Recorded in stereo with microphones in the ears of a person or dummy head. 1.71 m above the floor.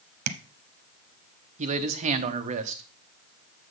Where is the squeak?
I don't hear a squeak.